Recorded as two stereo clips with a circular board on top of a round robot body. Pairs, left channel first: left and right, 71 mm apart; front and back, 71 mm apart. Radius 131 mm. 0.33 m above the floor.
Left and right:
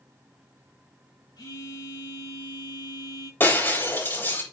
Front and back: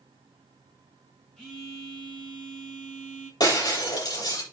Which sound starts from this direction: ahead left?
Breaking glass, at 3.4 s.